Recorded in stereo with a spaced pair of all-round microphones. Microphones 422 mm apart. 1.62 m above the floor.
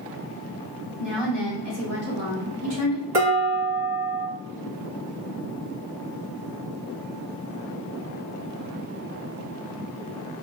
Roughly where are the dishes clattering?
Right.